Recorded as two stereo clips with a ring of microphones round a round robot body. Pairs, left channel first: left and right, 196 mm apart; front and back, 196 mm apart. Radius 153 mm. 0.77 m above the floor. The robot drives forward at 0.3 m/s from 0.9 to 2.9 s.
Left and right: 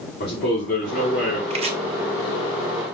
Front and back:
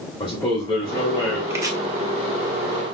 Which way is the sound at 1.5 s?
110° right.